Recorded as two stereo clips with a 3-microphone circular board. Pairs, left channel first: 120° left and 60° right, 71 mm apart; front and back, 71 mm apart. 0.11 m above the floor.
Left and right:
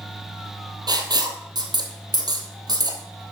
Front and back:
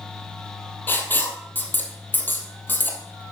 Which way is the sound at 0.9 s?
60° right.